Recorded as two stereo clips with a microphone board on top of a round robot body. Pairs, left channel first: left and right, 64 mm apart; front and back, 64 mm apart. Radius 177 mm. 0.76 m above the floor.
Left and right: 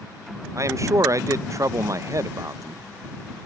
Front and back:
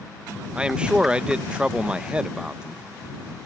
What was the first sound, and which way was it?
A man speaking, 110° right.